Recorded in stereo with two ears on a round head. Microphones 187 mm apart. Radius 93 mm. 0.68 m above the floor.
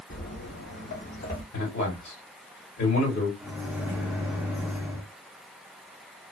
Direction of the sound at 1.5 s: 55° left (ahead or behind).